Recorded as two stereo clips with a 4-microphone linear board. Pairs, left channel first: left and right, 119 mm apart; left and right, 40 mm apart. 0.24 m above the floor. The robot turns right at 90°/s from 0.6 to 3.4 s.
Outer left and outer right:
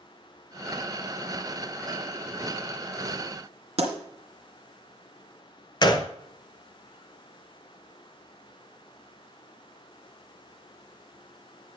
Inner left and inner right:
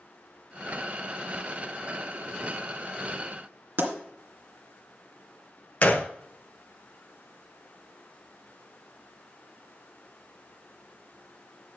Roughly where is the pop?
Right.